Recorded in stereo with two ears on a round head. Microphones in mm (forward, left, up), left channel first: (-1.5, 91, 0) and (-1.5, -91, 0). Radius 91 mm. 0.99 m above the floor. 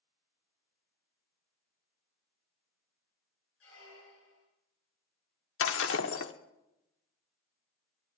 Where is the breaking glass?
70° left (ahead or behind), 1.2 m.